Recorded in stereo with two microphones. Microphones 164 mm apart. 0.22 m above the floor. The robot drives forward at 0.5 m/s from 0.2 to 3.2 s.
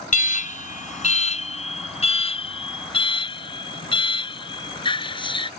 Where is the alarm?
50° left (ahead or behind); by 5.5 s 30° left (ahead or behind).